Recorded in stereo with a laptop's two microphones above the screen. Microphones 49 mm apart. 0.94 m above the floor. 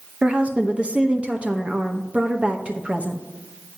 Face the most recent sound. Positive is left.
turn(degrees=-25)  # may be behind; listen again after turning